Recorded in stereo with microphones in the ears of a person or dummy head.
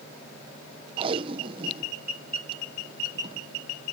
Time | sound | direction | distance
1.0 | tape being pulled | 30° right (ahead or behind) | ?